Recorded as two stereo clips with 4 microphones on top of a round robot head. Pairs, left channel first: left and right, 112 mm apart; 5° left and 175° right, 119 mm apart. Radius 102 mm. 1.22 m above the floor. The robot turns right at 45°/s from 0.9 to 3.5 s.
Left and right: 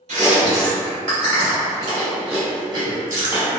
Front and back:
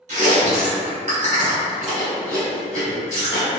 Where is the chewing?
135° right, 1.1 m; by 3.5 s 20° right, 1.1 m.